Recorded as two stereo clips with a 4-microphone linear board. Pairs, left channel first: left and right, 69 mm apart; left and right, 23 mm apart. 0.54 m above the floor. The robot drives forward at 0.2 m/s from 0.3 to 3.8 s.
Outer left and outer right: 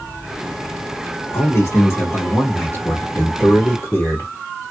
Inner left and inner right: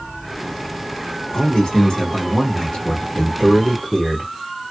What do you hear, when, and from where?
1.3 s a man speaking: 40° left (ahead or behind), 1.5 m; by 4.3 s 35° left (ahead or behind), 1.7 m